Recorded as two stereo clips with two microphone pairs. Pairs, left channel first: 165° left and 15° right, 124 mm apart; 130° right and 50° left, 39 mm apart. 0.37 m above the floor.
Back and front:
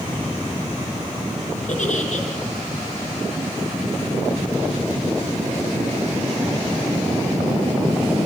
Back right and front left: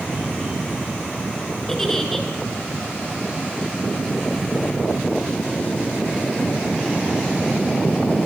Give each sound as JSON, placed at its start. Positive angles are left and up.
{"t": 1.7, "sound": "a giggle", "azimuth_deg": 145, "distance_m": 5.5}